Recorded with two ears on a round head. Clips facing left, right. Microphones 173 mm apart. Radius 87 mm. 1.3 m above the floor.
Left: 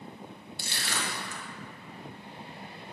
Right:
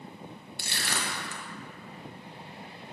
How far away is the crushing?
About 1.2 m.